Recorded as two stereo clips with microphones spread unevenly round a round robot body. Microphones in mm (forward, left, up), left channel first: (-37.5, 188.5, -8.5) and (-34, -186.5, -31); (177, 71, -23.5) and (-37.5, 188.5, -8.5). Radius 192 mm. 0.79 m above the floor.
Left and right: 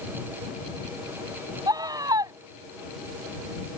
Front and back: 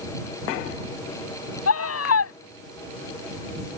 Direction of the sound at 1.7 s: 10° right.